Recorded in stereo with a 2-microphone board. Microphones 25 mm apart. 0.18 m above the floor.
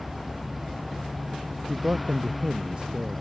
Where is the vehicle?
Centre (ahead or behind); by 3.2 s 5° left (ahead or behind).